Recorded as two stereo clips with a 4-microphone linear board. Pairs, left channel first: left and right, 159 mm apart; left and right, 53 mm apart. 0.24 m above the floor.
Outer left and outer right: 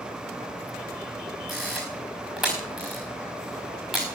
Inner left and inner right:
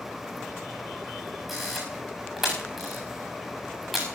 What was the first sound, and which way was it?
A camera shutter, centre (ahead or behind).